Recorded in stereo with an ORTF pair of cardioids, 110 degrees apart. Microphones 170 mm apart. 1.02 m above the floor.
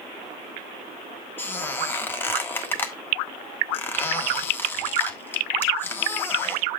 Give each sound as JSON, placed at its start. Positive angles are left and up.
{"t": 1.4, "sound": "a squeak", "azimuth_deg": 10, "distance_m": 1.3}